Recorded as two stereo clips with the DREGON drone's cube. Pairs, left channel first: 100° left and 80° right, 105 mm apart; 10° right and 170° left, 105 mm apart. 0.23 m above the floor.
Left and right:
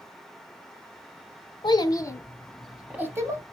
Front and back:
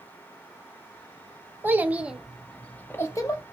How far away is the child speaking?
About 0.8 m.